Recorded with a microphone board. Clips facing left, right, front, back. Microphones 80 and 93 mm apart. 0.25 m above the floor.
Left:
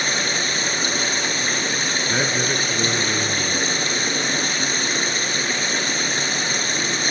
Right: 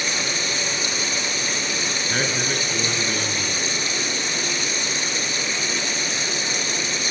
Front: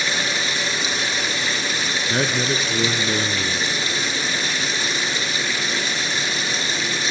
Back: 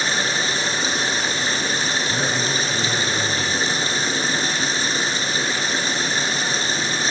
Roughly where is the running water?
Behind left.